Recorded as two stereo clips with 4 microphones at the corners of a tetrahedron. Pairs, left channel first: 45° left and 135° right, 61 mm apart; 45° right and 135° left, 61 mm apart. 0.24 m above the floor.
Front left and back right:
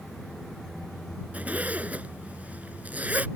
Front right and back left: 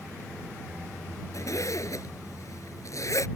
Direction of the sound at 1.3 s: 70° right.